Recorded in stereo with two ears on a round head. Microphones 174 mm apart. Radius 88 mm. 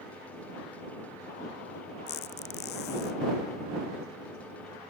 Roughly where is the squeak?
Left.